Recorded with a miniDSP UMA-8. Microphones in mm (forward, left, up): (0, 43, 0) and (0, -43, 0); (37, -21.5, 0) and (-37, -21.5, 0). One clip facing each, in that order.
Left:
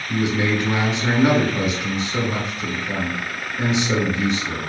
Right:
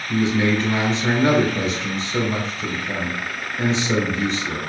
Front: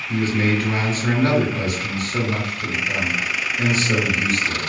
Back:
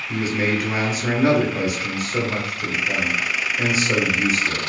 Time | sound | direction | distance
0.1 | a man speaking | 140° left | 1.0 m